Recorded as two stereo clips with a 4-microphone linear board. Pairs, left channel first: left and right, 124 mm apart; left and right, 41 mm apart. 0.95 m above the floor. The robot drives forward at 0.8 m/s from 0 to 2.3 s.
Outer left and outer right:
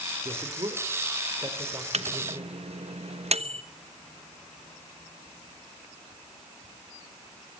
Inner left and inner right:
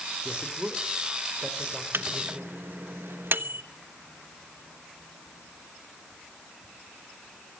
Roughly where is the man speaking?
Right.